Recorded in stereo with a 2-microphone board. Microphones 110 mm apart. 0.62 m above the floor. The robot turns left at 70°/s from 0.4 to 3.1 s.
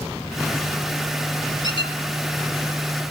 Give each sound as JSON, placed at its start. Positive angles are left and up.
{"t": 1.6, "sound": "a squeak", "side_deg": 40, "distance_m": 1.8}